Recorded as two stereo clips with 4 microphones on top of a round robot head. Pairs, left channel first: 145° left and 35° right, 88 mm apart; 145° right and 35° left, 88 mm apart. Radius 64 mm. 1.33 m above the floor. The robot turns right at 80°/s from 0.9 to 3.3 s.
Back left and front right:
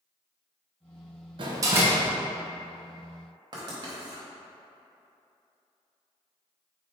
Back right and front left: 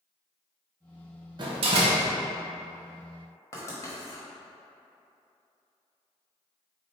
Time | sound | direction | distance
1.4 | a door slam | 5° right | 0.7 m
3.5 | writing | 85° right | 1.1 m